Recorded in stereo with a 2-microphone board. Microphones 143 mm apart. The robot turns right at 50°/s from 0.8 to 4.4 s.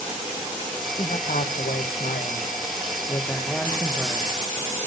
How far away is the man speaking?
About 1.1 m.